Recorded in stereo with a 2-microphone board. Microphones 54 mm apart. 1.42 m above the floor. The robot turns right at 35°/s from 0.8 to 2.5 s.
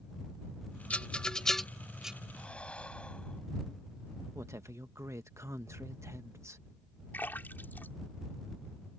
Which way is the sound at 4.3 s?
65° right (ahead or behind).